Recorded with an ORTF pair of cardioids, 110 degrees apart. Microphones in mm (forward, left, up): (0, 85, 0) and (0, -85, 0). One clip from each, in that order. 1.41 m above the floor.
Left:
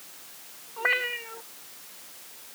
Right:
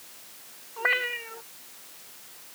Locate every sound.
0.8 s a cat meowing: 10° right